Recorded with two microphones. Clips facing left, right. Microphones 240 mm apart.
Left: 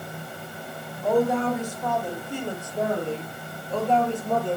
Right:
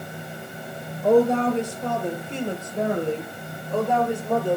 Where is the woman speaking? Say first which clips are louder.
Right 4 dB; 30° right (ahead or behind), 5 m; by 4.6 s 5° right (ahead or behind), 4 m.